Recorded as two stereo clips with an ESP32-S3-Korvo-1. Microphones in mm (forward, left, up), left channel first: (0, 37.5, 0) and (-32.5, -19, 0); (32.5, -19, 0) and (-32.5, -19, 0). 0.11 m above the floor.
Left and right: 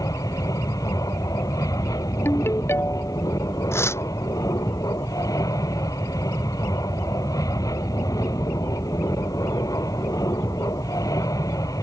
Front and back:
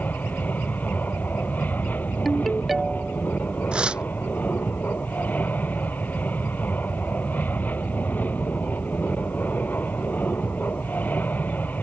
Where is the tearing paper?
105° left.